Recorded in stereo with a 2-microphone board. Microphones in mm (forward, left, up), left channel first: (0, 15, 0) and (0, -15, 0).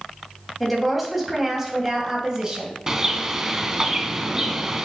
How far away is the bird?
About 0.8 m.